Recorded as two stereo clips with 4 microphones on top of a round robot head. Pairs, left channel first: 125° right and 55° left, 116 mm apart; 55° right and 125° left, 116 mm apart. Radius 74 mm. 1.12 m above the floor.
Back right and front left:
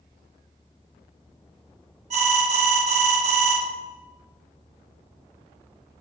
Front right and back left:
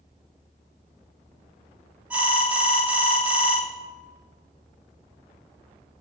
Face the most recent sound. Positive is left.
turn(degrees=45)